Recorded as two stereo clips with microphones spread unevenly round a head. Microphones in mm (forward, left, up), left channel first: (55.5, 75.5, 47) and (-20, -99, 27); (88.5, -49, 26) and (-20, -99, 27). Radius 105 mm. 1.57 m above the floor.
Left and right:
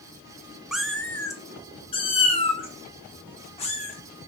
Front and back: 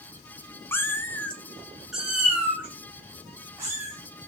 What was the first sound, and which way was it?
A cat meowing, 15° right.